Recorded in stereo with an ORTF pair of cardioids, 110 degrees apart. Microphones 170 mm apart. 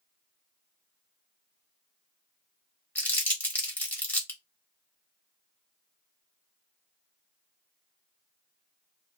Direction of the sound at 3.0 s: 10° left.